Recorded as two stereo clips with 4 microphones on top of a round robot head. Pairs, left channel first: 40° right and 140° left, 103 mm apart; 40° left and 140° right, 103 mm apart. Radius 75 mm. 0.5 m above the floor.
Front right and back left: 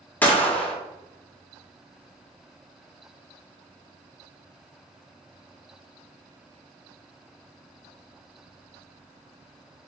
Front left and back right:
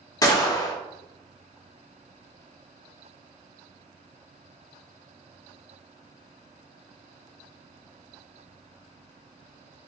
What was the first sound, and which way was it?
A gunshot, 25° left.